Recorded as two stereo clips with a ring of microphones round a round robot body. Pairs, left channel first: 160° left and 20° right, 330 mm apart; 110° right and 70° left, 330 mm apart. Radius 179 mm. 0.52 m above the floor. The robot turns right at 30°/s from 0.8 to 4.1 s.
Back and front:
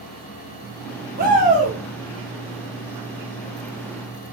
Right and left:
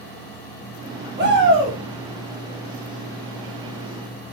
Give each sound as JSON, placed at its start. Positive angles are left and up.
{"t": 1.2, "sound": "a shout", "azimuth_deg": 25, "distance_m": 1.5}